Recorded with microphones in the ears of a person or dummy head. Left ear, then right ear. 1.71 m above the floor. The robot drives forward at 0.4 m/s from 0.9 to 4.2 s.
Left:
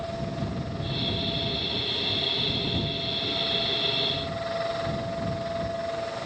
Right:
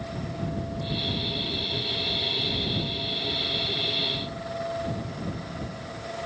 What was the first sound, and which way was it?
Only background noise.